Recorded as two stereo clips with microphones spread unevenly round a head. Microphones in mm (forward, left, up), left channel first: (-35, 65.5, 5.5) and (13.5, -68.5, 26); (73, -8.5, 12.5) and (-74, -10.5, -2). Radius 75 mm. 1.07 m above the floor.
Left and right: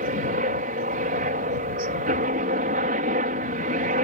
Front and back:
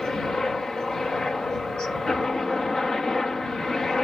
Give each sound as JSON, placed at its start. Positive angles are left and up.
{"t": 0.0, "sound": "a helicopter", "azimuth_deg": -85}